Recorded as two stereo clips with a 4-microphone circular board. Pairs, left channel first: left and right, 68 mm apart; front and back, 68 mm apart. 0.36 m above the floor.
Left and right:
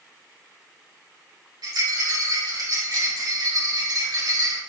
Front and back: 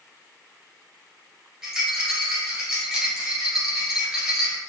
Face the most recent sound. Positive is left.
turn(degrees=-95)